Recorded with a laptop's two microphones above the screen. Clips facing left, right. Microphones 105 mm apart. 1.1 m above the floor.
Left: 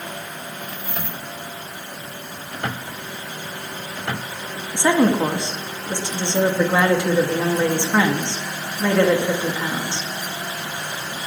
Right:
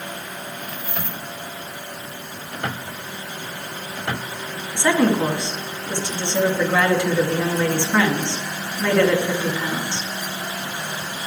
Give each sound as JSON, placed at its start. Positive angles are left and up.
{"t": 4.7, "sound": "a woman speaking", "side_deg": 20, "distance_m": 1.9}